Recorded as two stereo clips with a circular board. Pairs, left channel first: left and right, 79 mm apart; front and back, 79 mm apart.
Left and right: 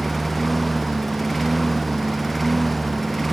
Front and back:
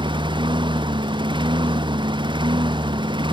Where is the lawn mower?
175° left.